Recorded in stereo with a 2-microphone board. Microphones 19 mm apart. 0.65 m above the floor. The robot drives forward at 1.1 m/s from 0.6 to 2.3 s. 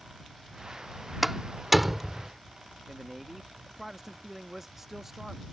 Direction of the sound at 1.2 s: 15° right (ahead or behind).